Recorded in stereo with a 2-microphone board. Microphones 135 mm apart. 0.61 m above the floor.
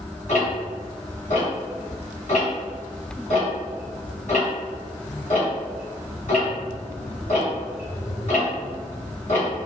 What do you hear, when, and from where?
0.3 s ticking: 65° left (ahead or behind), 1.9 m